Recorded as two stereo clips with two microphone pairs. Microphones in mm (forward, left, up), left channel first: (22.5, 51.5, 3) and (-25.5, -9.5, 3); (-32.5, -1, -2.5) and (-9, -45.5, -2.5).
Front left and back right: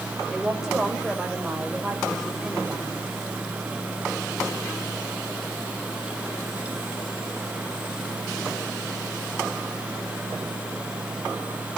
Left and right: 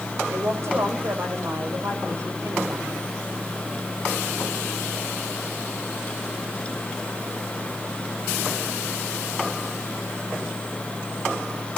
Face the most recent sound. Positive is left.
turn(degrees=-45)